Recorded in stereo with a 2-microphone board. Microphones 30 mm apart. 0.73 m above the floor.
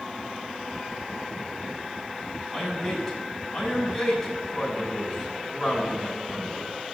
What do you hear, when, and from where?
2.5 s a man speaking: 5° left (ahead or behind), 5.5 m